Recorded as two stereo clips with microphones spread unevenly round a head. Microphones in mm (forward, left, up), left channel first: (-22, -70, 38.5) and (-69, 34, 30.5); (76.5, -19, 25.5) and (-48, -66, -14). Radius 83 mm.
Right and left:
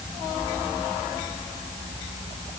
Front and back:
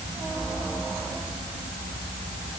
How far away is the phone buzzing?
I don't hear a phone buzzing.